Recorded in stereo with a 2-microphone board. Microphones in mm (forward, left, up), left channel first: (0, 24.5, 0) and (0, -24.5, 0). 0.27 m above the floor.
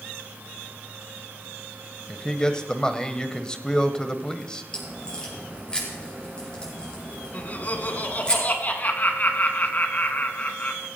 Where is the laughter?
35° left (ahead or behind), 2 m.